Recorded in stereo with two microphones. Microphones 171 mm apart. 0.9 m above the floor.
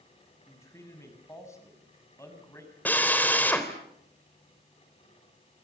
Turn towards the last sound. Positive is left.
turn(degrees=10)  # may be behind; listen again after turning